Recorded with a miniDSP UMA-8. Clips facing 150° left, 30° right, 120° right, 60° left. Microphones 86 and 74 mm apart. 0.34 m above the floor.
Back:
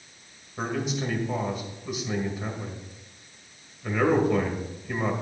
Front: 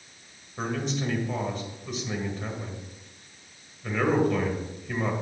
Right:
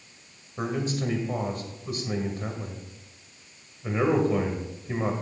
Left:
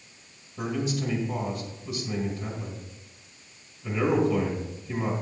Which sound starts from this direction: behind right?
A man speaking, at 0.6 s.